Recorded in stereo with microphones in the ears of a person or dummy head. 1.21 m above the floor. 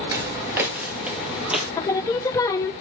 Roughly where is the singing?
Centre.